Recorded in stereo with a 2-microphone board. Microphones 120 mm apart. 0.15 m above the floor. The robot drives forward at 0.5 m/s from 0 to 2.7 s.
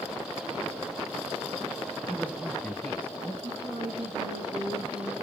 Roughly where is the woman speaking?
Right.